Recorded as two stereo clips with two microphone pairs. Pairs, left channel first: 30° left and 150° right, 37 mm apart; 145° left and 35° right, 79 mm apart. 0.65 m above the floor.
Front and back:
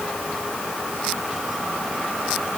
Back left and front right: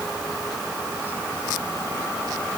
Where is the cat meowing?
I don't hear a cat meowing.